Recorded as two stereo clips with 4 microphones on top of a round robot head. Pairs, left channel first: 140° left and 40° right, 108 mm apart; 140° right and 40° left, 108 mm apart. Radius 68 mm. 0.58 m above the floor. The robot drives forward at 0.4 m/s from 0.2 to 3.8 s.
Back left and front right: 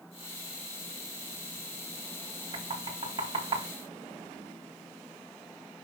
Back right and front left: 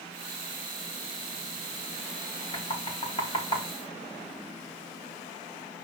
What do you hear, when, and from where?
2.5 s knocking: 90° right, 4.5 m; by 3.7 s 95° right, 4.5 m